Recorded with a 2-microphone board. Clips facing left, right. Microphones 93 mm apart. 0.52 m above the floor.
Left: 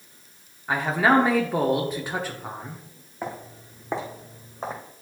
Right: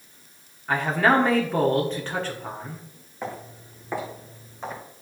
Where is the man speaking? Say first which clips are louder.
Even; 10° left (ahead or behind), 1.0 m.